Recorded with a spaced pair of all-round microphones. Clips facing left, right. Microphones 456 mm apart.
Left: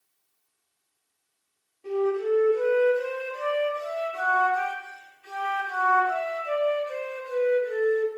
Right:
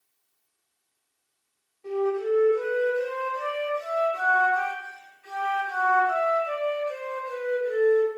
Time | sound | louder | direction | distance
1.8 | a flute | left 1 dB | 55° left (ahead or behind) | 0.8 m